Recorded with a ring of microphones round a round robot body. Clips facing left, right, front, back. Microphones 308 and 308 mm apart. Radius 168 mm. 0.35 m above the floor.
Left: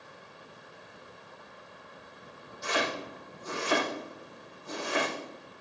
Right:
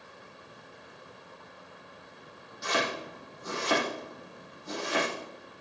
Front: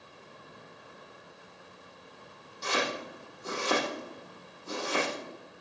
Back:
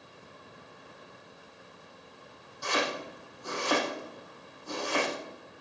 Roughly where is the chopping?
Ahead right.